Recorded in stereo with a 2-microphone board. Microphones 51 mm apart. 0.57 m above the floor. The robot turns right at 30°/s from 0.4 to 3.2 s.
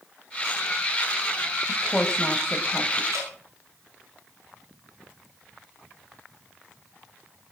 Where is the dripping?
80° right, 9.5 m; by 3.3 s 85° right, 9.5 m.